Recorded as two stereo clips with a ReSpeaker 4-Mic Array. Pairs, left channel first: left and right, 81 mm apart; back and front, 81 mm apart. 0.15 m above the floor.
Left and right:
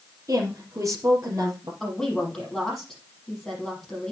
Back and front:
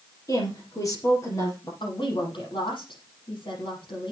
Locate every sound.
0.3 s a woman speaking: 135° right, 4.5 m
1.8 s a woman speaking: 175° left, 6.5 m